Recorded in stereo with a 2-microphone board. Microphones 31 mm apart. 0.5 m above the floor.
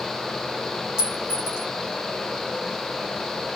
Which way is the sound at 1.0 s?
25° right (ahead or behind).